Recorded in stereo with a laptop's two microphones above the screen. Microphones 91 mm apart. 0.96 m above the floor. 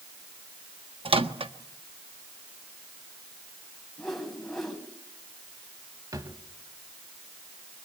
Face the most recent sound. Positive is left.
turn(degrees=-40)  # may be behind; listen again after turning